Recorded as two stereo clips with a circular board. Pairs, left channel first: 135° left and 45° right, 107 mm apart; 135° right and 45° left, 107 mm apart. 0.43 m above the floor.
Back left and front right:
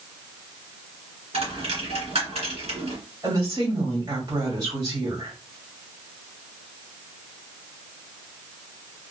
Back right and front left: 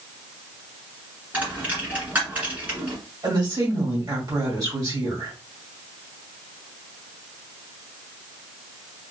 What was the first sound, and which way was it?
A dropped coin, 30° right.